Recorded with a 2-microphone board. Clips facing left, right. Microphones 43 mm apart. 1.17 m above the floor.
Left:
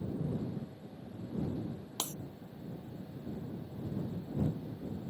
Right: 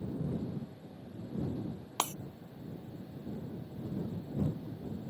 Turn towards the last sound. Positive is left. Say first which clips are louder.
# right 8 dB
turn(degrees=-70)  # may be behind; listen again after turning